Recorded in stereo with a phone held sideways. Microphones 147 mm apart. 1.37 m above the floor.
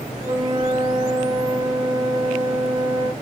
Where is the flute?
40° right (ahead or behind), 6.5 m.